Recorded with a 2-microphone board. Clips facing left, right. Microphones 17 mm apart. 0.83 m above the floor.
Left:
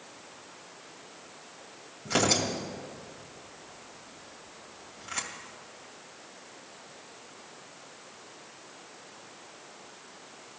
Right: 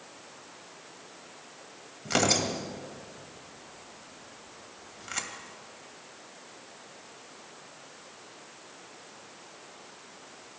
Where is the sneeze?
I don't hear a sneeze.